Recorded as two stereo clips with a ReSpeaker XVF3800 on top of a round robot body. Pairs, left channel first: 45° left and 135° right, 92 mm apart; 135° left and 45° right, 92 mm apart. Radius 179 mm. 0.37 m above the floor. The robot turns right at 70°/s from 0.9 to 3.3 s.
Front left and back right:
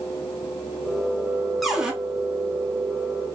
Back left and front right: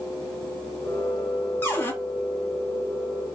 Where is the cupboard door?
135° left, 0.9 m; by 1.9 s 155° left, 0.9 m.